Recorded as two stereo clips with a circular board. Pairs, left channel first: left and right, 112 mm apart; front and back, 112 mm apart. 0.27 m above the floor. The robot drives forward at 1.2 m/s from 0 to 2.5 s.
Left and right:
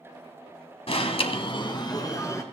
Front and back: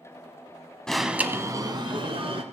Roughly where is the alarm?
Left.